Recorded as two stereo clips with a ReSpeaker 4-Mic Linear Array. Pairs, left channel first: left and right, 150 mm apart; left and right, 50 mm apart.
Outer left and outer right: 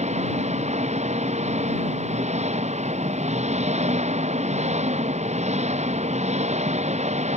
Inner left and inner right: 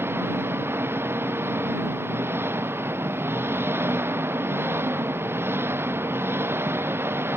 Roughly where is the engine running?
Right.